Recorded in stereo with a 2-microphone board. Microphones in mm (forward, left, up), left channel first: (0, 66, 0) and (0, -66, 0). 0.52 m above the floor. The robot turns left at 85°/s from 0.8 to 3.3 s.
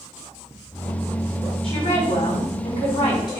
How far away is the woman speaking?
About 5 m.